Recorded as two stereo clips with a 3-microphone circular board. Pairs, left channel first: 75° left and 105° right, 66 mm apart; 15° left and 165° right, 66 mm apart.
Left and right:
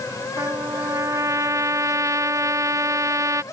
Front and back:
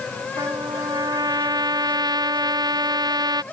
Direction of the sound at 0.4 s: 150° right.